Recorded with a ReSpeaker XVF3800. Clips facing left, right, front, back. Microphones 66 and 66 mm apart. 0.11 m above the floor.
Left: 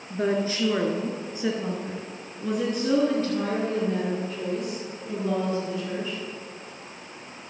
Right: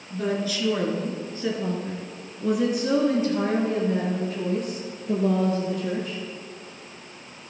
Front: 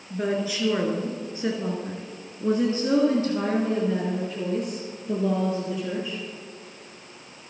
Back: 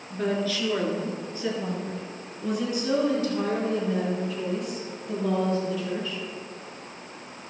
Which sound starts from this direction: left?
A woman speaking, at 0.1 s.